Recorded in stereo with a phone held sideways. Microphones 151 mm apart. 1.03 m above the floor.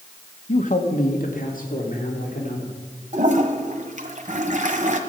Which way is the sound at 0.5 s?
50° left (ahead or behind).